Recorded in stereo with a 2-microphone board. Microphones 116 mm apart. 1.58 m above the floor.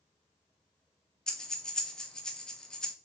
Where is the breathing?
5° left (ahead or behind), 0.5 m.